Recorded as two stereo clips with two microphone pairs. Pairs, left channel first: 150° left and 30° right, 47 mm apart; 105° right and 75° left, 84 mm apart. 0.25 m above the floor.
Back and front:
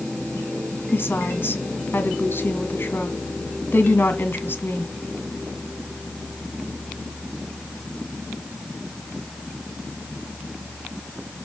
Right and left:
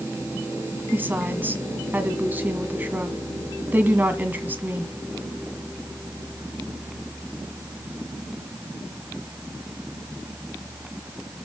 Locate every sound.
0.9 s a woman speaking: 135° left, 1.8 m